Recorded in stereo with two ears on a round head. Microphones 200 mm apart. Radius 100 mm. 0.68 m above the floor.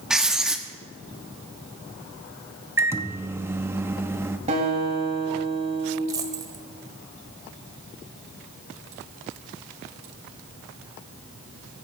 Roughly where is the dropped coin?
Centre.